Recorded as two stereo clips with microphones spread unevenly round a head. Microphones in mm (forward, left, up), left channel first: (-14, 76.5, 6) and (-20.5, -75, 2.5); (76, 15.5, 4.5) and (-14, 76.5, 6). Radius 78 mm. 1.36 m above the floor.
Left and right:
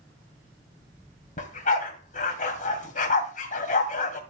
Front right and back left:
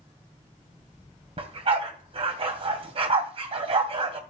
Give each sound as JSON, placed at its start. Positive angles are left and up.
{"t": 1.4, "sound": "a dog barking", "azimuth_deg": 120, "distance_m": 2.5}